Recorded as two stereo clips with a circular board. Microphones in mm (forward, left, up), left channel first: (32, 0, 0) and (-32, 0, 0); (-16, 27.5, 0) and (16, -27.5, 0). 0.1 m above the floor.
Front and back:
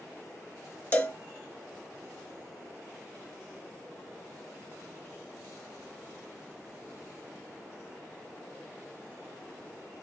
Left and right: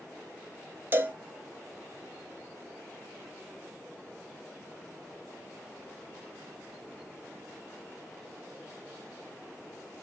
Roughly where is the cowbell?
Ahead right.